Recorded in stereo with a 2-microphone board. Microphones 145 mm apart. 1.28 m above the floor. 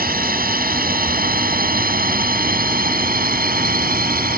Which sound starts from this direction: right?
A drone, at 0.0 s.